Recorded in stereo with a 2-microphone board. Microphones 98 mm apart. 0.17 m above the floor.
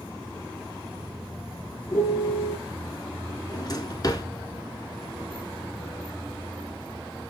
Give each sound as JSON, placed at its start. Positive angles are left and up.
{"t": 1.9, "sound": "a piano", "side_deg": 30, "distance_m": 2.0}
{"t": 3.5, "sound": "a drawer", "side_deg": 40, "distance_m": 1.0}